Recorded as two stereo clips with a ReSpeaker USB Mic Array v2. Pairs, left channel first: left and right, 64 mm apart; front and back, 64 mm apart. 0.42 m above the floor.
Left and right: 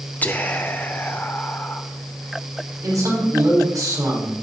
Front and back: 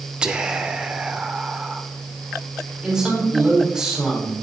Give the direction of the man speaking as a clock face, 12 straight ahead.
3 o'clock.